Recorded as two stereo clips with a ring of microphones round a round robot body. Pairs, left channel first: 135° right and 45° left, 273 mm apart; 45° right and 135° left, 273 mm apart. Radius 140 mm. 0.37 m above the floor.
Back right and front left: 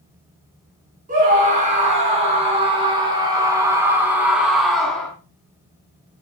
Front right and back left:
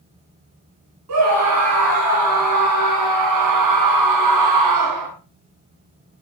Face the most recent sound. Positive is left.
turn(degrees=140)